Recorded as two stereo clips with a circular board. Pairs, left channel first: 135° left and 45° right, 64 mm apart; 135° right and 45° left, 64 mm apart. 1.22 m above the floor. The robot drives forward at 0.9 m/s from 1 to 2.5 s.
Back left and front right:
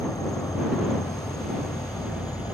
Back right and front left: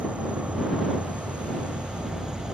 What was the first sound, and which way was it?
An insect, 115° left.